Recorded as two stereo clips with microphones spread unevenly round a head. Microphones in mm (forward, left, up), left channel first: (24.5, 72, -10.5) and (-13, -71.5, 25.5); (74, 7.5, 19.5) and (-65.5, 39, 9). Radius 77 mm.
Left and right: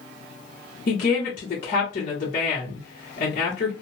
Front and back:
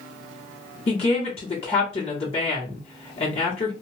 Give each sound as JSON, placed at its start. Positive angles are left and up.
{"t": 0.9, "sound": "a woman speaking", "azimuth_deg": 40, "distance_m": 1.1}